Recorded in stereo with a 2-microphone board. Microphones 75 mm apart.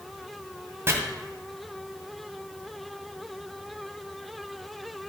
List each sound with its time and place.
0.9 s chopping: 35° right (ahead or behind), 1.9 m